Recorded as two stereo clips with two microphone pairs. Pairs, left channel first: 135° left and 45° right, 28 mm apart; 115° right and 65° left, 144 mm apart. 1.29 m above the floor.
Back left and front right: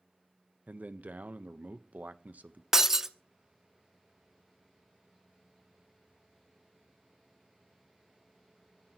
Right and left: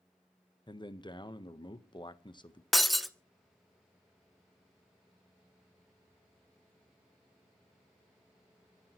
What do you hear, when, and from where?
0.7 s a man speaking: 55° right, 1.1 m
2.7 s breaking glass: 15° right, 0.8 m